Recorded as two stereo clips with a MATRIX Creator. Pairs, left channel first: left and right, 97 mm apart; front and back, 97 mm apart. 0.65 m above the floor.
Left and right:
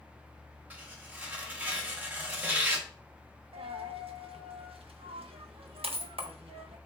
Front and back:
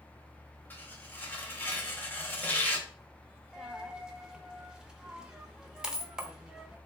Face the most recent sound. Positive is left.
turn(degrees=-100)